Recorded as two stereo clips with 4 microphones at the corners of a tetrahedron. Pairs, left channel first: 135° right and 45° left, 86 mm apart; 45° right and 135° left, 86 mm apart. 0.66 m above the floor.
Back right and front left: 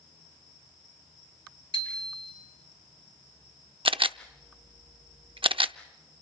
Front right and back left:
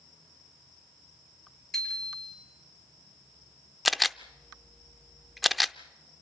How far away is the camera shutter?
About 0.5 m.